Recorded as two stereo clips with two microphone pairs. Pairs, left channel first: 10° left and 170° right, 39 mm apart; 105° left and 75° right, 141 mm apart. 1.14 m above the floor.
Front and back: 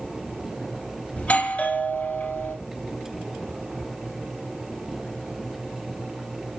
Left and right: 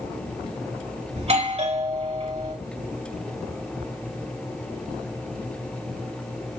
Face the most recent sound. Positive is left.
turn(degrees=-40)